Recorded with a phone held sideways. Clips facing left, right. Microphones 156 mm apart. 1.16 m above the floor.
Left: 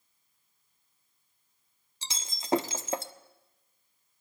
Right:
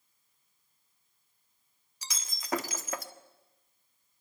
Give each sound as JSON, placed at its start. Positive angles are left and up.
{"t": 2.0, "sound": "breaking glass", "side_deg": 25, "distance_m": 1.3}